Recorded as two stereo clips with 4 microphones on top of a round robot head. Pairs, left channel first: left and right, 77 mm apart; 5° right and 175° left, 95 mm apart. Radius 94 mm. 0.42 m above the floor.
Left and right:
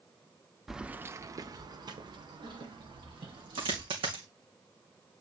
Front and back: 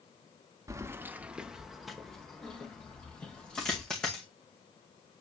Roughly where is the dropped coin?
Right.